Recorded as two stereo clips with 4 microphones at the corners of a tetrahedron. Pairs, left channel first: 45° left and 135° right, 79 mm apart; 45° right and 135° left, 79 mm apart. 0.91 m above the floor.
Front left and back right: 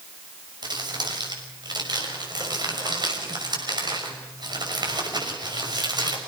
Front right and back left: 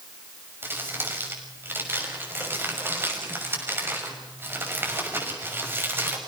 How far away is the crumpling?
About 6 m.